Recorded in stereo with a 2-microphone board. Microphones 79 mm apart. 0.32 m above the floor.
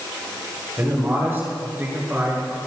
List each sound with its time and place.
0.8 s a man speaking: 25° right (ahead or behind), 5.5 m; by 2.6 s 20° right (ahead or behind), 4 m